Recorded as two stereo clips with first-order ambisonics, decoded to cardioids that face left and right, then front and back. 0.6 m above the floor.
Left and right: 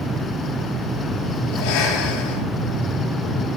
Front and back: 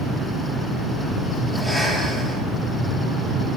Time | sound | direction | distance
1.5 | breathing | 90° left | 6 m